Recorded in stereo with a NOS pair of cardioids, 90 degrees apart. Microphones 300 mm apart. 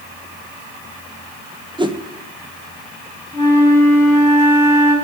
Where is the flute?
5° right, 3.5 m.